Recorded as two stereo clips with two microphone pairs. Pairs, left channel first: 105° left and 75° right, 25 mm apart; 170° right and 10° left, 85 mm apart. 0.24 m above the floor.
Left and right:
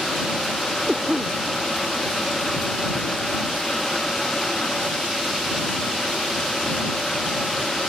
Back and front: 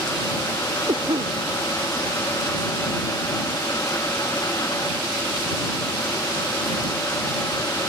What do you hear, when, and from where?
0.9 s a cough: 10° right